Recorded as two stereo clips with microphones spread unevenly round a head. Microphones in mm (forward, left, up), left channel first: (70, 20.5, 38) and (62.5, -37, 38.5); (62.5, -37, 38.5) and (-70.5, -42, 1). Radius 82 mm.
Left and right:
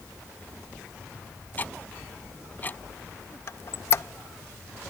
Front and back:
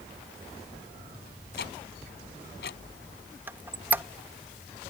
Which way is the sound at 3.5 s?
90° left.